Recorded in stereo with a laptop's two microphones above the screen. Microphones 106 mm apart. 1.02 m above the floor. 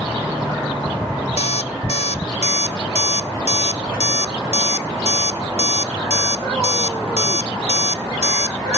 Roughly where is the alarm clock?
Left.